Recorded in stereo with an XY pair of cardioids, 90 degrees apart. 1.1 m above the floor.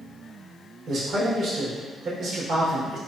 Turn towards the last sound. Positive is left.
turn(degrees=-70)